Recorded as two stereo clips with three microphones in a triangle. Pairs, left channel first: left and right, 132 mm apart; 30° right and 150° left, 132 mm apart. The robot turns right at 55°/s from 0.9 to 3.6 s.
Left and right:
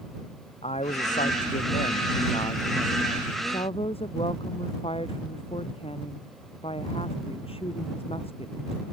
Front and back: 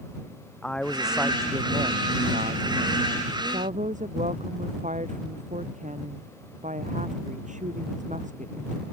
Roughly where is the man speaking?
Ahead left.